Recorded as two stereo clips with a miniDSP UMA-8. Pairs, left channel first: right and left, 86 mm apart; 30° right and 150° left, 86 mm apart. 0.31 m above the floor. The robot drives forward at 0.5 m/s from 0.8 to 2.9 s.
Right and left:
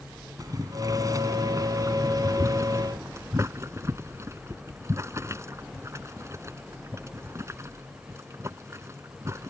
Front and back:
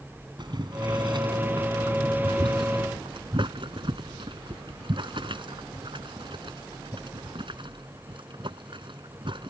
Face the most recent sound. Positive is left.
turn(degrees=145)